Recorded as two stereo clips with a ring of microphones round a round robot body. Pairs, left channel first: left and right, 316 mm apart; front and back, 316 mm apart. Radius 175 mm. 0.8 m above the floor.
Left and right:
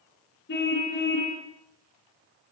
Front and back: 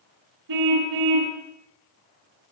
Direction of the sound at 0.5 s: 155° left.